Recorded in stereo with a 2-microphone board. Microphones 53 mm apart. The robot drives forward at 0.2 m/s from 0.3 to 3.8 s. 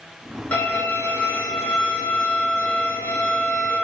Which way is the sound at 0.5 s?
35° left (ahead or behind).